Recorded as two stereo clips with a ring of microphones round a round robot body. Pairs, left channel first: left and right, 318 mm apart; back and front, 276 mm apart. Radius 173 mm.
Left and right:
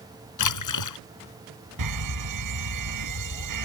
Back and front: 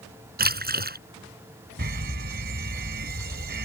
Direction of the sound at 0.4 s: 55° left.